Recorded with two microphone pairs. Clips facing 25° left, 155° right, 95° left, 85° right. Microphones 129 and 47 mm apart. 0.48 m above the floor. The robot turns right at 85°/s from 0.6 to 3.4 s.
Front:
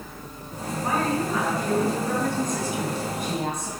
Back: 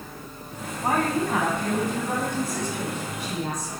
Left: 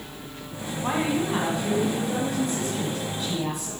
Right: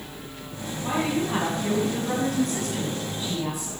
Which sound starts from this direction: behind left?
A woman speaking, at 0.8 s.